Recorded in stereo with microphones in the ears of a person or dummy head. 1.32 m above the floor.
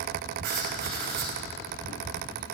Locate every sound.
0.4 s writing: 55° right (ahead or behind), 2.5 m